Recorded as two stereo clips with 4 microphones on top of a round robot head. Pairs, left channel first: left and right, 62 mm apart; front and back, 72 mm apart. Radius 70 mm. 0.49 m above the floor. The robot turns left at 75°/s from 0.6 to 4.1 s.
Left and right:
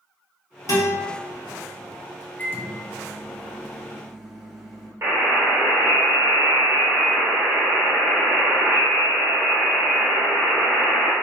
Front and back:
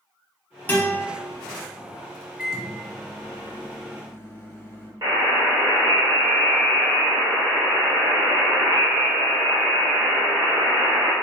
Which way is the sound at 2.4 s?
115° left.